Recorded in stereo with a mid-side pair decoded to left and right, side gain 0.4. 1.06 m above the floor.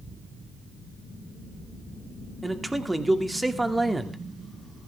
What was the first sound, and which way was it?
A man speaking, 15° right.